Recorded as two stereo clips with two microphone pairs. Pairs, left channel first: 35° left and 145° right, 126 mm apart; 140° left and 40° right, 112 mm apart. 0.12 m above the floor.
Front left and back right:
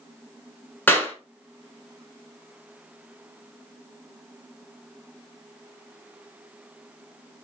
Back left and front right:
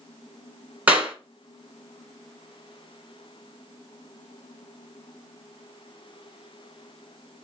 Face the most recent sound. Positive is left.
turn(degrees=-5)